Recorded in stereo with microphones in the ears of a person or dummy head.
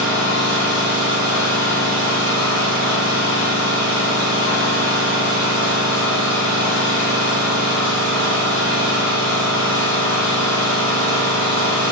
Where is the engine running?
30° right (ahead or behind), 1.7 m.